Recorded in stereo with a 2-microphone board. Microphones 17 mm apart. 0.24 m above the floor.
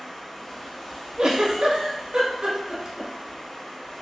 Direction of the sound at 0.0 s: 55° left (ahead or behind).